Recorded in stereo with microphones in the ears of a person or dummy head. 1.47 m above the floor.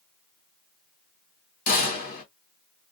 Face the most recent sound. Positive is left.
turn(degrees=45)  # may be behind; listen again after turning